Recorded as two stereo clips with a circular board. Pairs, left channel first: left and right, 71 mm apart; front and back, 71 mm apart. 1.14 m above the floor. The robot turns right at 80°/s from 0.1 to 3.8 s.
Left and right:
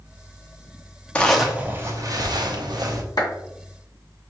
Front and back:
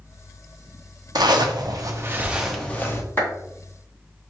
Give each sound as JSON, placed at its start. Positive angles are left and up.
{"t": 1.1, "sound": "a zipper", "azimuth_deg": 160, "distance_m": 0.7}
{"t": 3.2, "sound": "a clap", "azimuth_deg": 65, "distance_m": 2.5}